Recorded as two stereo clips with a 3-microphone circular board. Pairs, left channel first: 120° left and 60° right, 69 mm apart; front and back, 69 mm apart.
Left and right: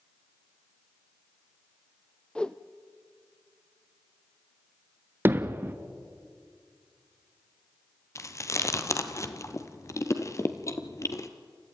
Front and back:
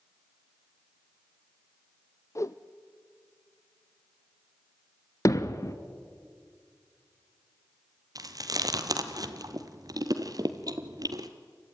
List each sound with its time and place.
2.4 s a whoosh: 45° left, 0.7 m
5.2 s hammering: 10° right, 1.0 m
8.2 s chewing: 160° left, 1.3 m